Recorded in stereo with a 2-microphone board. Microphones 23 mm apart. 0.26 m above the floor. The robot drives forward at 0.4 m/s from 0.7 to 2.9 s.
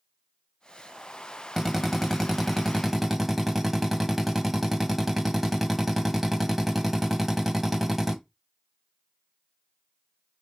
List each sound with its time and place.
1.6 s a drill: 5° right (ahead or behind), 1.8 m